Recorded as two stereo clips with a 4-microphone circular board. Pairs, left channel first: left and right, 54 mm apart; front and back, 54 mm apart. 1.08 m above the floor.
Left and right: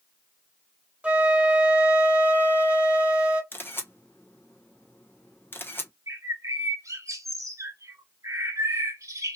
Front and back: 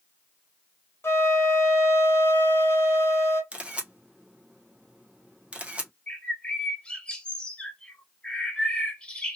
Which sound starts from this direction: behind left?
A camera shutter, at 3.5 s.